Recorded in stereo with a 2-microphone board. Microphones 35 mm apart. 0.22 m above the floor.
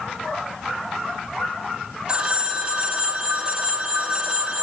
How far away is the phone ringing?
About 0.6 m.